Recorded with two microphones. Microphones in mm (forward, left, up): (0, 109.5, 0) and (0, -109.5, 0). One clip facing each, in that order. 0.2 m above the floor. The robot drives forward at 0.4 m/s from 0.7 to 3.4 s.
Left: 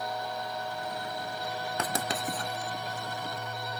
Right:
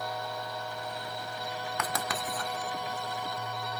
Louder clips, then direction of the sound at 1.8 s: Left 3 dB; 30° left (ahead or behind).